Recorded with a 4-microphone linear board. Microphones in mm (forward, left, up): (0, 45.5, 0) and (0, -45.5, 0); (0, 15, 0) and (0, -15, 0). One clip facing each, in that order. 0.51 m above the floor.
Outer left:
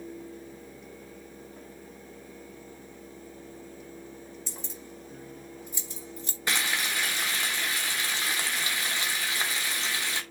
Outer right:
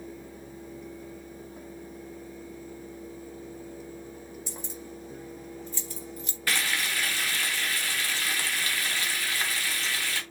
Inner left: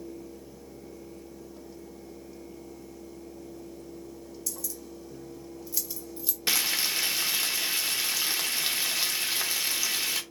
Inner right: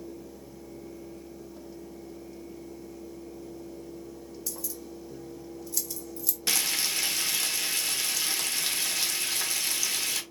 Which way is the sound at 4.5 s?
15° right (ahead or behind).